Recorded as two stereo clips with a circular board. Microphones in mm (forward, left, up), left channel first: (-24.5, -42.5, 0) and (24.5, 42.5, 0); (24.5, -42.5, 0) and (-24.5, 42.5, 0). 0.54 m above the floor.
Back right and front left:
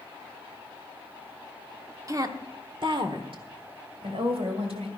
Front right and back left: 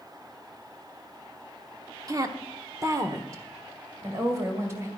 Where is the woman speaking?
90° left, 1.0 m; by 4.9 s 60° left, 2.5 m.